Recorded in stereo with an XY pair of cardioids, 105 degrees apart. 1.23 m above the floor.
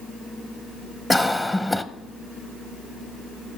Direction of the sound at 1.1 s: 15° left.